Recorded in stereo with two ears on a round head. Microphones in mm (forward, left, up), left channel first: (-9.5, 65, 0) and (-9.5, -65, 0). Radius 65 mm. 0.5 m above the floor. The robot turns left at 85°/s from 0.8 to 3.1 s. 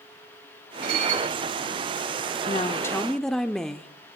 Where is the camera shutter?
I don't hear a camera shutter.